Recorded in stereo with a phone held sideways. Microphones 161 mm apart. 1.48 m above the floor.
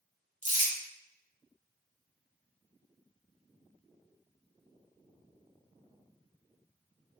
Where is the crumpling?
50° right (ahead or behind), 1.2 m.